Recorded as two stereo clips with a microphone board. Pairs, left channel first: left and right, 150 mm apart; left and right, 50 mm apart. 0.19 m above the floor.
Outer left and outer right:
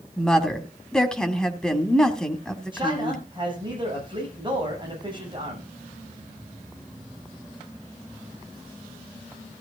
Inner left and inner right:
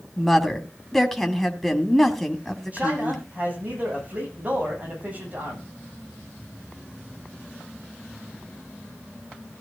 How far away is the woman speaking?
About 1.7 m.